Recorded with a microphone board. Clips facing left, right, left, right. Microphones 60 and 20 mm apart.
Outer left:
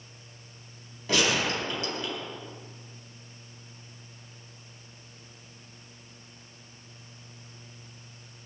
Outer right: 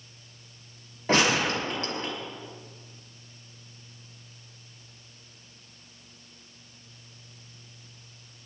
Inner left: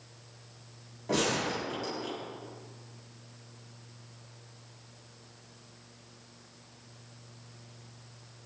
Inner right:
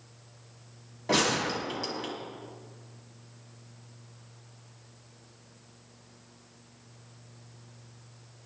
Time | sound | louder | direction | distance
1.1 | a gunshot | outer right 3 dB, inner right 3 dB | 40° right (ahead or behind) | 4.5 m